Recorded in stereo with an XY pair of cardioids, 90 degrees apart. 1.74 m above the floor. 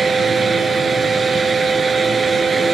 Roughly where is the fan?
Ahead right.